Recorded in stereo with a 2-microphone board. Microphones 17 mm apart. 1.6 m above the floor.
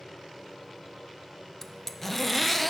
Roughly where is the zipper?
Centre.